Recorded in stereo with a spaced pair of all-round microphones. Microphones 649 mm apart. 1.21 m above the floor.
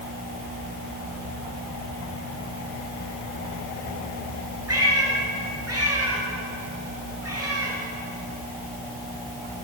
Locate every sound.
4.7 s a cat meowing: 20° right (ahead or behind), 6.5 m